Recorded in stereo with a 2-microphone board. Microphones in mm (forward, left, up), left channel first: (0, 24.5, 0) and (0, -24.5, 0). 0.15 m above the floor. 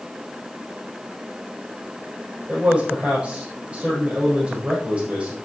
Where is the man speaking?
25° right (ahead or behind), 5 m.